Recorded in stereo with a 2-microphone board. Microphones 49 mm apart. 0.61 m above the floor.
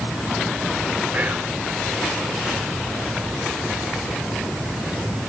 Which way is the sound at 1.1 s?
35° right (ahead or behind).